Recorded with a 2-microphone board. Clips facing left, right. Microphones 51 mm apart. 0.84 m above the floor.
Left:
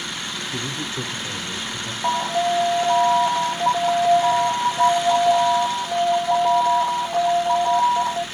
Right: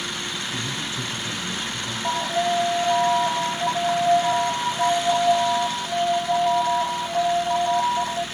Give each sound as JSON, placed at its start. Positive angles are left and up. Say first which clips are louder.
{"t": 0.5, "sound": "a man speaking", "louder": "left 1 dB", "side_deg": 80, "distance_m": 1.8}
{"t": 2.0, "sound": "an alarm", "louder": "left 3 dB", "side_deg": 65, "distance_m": 1.7}